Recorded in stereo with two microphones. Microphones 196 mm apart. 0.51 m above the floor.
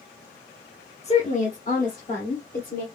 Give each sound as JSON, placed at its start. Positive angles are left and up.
{"t": 1.0, "sound": "a woman speaking", "side_deg": 30, "distance_m": 1.0}